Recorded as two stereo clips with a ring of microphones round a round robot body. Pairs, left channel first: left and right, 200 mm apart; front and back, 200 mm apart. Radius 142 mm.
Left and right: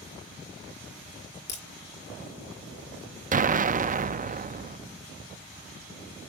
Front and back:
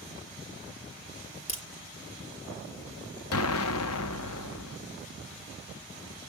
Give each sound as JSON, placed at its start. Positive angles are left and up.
{"t": 1.5, "sound": "a crack", "azimuth_deg": 60, "distance_m": 7.0}
{"t": 3.3, "sound": "an explosion", "azimuth_deg": -35, "distance_m": 0.5}